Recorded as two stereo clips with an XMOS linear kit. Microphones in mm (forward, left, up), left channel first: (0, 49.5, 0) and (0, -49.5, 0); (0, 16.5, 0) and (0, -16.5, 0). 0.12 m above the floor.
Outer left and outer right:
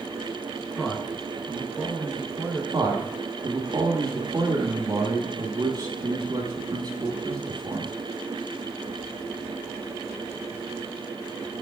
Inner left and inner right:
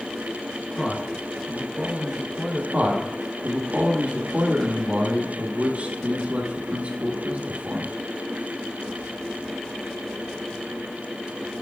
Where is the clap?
I don't hear a clap.